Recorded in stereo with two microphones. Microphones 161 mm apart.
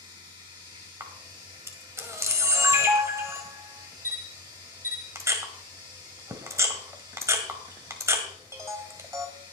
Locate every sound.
0.0 s running water: 30° right (ahead or behind), 6 m
1.0 s a camera shutter: 20° right (ahead or behind), 1.7 m